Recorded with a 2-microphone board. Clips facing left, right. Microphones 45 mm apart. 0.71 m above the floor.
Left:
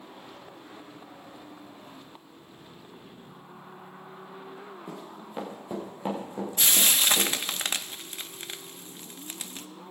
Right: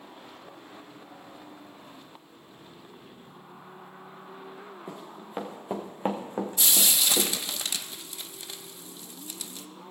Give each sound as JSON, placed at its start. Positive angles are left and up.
{"t": 4.9, "sound": "running footsteps", "side_deg": -15, "distance_m": 3.0}
{"t": 6.6, "sound": "frying", "side_deg": 45, "distance_m": 0.6}